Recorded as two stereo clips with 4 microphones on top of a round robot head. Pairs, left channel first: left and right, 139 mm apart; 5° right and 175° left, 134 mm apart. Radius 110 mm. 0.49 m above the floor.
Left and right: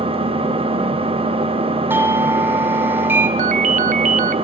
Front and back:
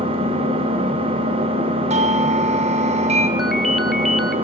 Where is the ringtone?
95° right, 0.8 m.